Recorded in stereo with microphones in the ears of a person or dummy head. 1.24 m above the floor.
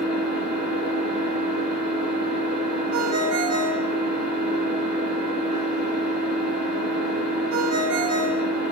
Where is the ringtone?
75° right (ahead or behind), 1.4 m.